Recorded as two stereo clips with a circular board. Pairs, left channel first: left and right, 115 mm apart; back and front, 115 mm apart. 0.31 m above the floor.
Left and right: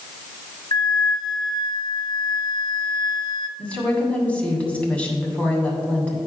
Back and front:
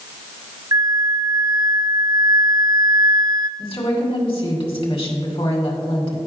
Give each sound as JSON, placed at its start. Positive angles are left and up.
{"t": 0.7, "sound": "a flute", "azimuth_deg": 50, "distance_m": 0.7}
{"t": 3.6, "sound": "a woman speaking", "azimuth_deg": 165, "distance_m": 2.0}